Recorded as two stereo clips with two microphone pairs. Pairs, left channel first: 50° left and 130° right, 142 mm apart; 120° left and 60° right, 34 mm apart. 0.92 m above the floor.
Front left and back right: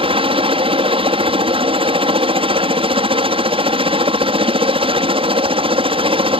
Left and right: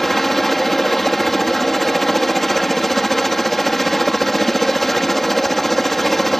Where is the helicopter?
160° right.